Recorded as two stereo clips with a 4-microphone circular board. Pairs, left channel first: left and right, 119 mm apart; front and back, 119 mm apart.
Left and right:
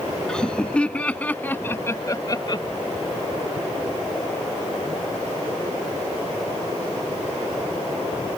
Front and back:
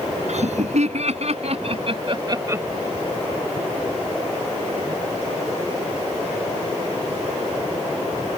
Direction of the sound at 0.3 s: 175° left.